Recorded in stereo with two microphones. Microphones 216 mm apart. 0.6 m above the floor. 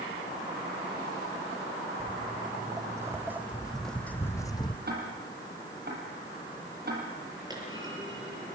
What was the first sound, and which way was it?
Footsteps, 25° right (ahead or behind).